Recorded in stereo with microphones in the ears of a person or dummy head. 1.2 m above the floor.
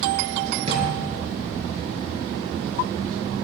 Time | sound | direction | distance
0.7 | a drawer | 35° right (ahead or behind) | 5.5 m